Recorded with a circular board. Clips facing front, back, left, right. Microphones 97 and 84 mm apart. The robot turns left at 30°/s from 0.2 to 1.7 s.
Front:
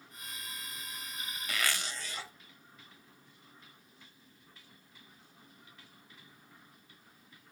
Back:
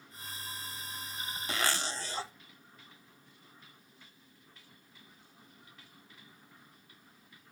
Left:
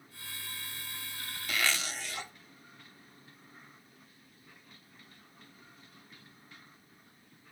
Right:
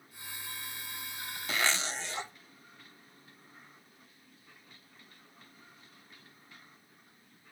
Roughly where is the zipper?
Behind right.